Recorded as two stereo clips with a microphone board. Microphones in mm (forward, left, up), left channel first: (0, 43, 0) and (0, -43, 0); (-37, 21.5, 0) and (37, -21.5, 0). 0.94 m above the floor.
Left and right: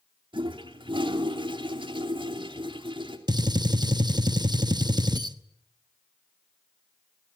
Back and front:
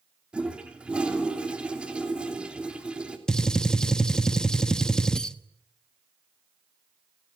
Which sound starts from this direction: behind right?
A gunshot, at 3.3 s.